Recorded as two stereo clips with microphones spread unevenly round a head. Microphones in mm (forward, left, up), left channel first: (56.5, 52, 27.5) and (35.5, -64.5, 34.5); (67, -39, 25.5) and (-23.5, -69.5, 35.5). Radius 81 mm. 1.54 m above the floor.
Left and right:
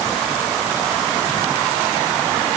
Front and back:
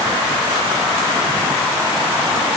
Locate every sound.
Only background noise.